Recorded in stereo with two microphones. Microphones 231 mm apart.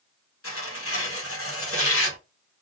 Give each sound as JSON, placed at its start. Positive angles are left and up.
{"t": 0.4, "sound": "tearing paper", "side_deg": 70, "distance_m": 1.5}